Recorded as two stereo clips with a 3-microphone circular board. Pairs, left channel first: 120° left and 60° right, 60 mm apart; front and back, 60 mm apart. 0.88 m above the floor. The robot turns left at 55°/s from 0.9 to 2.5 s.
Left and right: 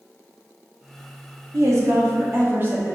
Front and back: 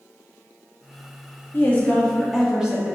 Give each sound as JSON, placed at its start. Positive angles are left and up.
{"t": 1.5, "sound": "a woman speaking", "azimuth_deg": -50, "distance_m": 1.9}